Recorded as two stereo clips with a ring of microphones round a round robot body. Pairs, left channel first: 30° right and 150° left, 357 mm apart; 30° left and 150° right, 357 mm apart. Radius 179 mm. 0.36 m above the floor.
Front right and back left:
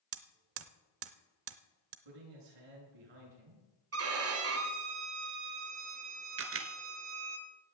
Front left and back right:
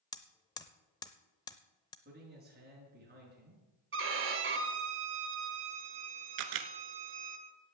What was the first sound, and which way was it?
Hammering, 105° left.